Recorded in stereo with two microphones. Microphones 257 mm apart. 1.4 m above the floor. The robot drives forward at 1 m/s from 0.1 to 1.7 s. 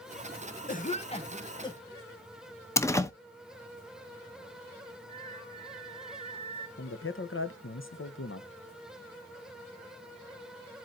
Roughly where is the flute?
Left.